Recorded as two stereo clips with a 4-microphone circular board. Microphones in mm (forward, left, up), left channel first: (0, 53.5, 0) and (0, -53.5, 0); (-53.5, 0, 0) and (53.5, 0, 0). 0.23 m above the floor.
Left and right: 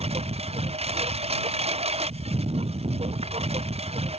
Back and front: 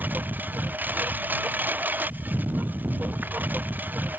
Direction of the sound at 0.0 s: 75° right.